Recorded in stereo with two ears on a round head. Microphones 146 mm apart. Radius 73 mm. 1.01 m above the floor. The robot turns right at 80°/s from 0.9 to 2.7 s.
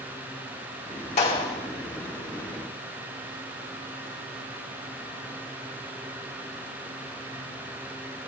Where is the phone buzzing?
No phone buzzing in this recording.